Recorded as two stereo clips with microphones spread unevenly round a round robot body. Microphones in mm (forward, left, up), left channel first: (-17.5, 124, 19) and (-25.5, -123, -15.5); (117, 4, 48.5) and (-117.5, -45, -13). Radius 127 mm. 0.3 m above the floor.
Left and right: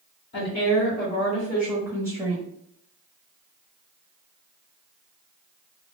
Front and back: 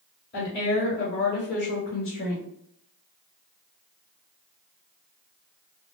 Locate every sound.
0.3 s a woman speaking: 60° left, 1.8 m; by 2.5 s 25° right, 1.5 m